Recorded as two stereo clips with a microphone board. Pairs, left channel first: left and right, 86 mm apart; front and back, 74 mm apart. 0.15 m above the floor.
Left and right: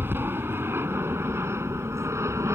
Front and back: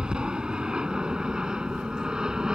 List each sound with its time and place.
0.0 s an aircraft: 115° right; by 2.5 s 105° right